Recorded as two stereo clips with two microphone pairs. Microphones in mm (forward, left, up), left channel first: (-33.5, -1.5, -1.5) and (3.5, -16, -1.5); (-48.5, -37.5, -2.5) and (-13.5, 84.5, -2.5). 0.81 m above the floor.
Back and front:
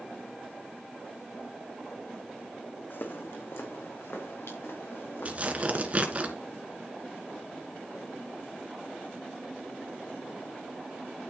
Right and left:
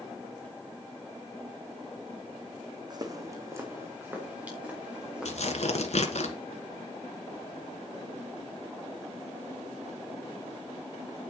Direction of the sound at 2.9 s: 125° left.